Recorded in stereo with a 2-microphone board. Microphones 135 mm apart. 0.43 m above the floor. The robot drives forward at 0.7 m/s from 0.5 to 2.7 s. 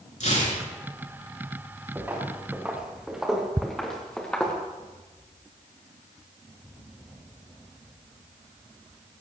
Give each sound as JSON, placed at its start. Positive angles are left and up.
{"t": 0.2, "sound": "tearing paper", "side_deg": 60, "distance_m": 5.5}
{"t": 1.9, "sound": "footsteps", "side_deg": -15, "distance_m": 3.5}
{"t": 3.6, "sound": "ticking", "side_deg": -20, "distance_m": 0.6}